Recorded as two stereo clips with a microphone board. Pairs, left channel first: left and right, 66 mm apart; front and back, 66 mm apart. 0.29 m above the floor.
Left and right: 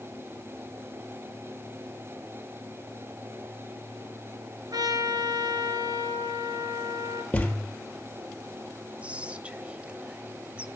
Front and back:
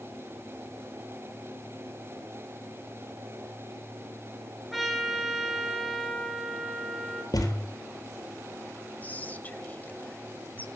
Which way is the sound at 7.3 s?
20° left.